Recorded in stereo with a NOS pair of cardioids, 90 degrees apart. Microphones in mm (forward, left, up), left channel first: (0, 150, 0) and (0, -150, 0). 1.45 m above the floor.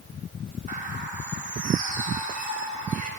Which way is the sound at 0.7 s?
25° right.